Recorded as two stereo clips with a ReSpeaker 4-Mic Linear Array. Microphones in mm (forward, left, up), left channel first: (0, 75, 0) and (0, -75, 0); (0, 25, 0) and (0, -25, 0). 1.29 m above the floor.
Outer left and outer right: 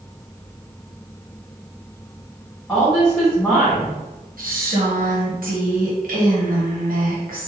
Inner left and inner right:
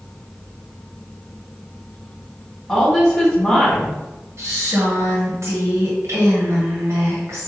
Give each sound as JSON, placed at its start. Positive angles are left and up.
{"t": 2.7, "sound": "a woman speaking", "side_deg": 0, "distance_m": 2.0}
{"t": 4.4, "sound": "a woman speaking", "side_deg": -65, "distance_m": 1.1}